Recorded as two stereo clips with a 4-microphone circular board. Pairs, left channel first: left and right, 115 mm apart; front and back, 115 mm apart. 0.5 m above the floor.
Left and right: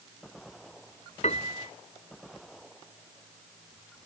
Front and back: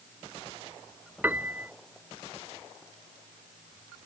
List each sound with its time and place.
1.2 s a piano: 105° left